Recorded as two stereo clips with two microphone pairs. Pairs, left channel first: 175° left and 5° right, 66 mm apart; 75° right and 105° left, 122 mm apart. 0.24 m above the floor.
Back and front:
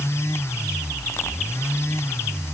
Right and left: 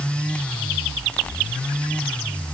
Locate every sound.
Only background noise.